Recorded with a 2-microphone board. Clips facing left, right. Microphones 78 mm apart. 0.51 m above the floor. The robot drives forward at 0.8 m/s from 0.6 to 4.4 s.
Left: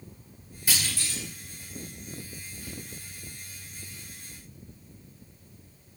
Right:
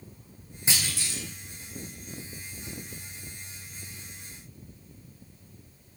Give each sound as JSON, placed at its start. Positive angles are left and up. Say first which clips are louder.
{"t": 0.7, "sound": "a clunk", "louder": "even", "side_deg": -25, "distance_m": 1.7}